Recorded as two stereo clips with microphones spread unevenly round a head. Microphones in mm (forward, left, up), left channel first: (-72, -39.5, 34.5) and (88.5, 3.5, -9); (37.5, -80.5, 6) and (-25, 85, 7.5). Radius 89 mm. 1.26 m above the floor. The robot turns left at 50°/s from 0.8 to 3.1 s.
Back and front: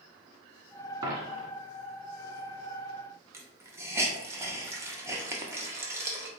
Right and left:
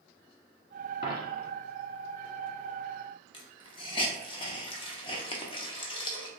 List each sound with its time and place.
1.0 s a dropped coin: 50° right, 1.3 m; by 1.5 s 75° right, 1.3 m
3.3 s a hiss: 75° right, 0.6 m